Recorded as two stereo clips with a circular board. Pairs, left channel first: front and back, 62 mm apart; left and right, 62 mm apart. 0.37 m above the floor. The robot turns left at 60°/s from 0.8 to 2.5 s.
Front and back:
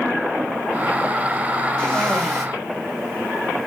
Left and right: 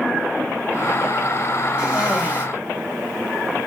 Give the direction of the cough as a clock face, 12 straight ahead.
2 o'clock.